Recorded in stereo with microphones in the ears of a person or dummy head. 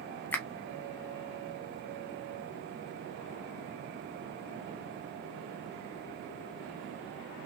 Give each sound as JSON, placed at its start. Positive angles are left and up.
{"t": 0.3, "sound": "a finger snap", "side_deg": 10, "distance_m": 0.5}